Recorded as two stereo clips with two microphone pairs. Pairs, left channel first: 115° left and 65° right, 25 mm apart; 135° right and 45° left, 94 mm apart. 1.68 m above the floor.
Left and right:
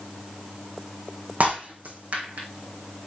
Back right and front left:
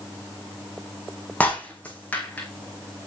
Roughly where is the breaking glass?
Ahead right.